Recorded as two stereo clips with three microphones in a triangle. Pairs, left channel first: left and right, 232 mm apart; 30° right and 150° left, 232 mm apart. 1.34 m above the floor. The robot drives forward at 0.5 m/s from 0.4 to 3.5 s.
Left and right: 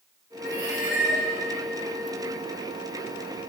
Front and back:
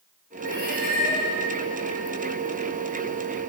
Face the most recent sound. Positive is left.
turn(degrees=-120)